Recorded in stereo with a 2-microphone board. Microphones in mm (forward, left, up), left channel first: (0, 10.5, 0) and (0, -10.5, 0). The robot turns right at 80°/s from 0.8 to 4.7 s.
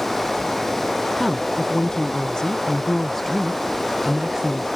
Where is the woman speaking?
Straight ahead; by 4.7 s 80° right.